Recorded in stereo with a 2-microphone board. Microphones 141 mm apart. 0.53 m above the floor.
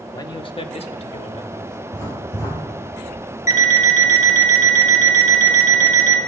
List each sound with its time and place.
0.1 s a man speaking: 25° left (ahead or behind), 0.7 m; by 1.8 s 45° left (ahead or behind), 1.8 m
1.9 s writing: 20° left (ahead or behind), 4.5 m
3.5 s an alarm clock: 70° left (ahead or behind), 1.6 m